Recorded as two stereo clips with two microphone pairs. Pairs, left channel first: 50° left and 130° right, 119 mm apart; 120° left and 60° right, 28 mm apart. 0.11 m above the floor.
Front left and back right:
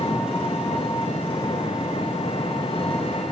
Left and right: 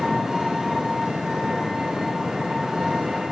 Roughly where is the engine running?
Ahead.